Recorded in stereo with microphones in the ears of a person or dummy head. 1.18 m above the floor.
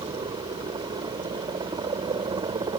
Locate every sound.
0.0 s a helicopter: 25° right (ahead or behind)